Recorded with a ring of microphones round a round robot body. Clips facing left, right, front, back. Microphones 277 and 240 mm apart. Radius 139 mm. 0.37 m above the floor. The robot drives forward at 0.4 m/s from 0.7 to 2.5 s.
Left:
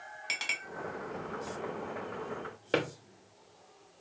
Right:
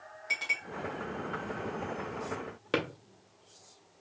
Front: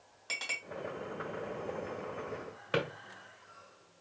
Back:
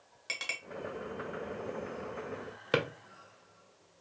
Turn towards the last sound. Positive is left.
turn(degrees=-165)